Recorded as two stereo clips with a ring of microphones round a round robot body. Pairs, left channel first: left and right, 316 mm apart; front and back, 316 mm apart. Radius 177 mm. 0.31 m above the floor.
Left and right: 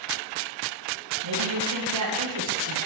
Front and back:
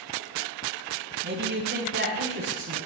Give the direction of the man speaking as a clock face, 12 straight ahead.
4 o'clock.